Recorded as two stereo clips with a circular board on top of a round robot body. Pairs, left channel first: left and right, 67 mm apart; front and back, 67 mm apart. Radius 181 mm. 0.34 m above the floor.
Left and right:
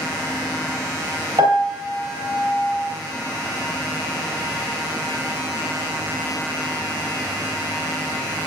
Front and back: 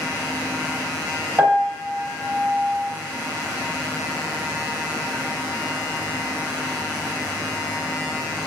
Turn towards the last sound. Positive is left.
turn(degrees=-105)